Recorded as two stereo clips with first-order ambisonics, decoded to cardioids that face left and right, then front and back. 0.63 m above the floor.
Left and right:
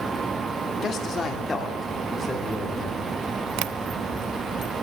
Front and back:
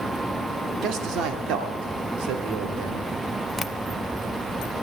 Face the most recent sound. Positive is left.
turn(degrees=-85)